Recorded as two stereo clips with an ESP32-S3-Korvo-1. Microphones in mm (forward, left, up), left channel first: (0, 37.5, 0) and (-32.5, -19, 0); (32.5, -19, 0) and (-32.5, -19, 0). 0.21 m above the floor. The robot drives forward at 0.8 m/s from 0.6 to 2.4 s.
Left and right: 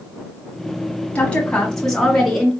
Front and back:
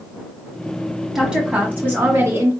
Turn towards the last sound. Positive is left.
turn(degrees=150)